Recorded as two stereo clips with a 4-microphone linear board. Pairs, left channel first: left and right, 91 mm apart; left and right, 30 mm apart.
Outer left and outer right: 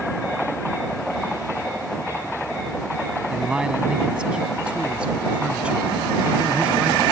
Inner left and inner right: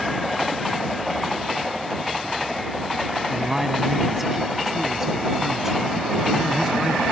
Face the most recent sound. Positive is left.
turn(degrees=-15)  # may be behind; listen again after turning